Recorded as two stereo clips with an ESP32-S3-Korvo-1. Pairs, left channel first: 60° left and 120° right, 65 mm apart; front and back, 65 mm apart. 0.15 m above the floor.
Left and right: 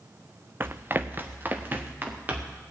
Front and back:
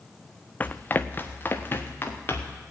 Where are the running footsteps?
65° right, 0.6 m; by 2.6 s 60° right, 3 m.